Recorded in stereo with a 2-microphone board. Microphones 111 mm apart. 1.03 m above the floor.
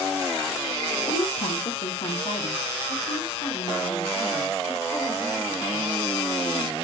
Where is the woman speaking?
80° left, 1.0 m; by 6.7 s 30° left (ahead or behind), 4.5 m.